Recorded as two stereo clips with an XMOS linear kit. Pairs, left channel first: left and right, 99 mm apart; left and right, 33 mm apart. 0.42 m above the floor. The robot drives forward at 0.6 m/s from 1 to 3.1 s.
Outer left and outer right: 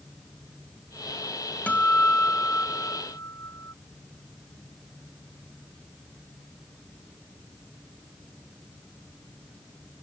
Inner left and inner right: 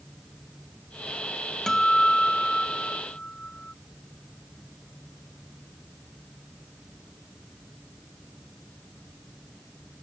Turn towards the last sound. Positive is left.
turn(degrees=25)  # may be behind; listen again after turning